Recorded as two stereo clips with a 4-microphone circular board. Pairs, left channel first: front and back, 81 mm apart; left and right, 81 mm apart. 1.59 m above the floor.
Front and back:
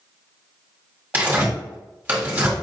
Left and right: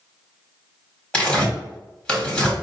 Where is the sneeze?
No sneeze in this recording.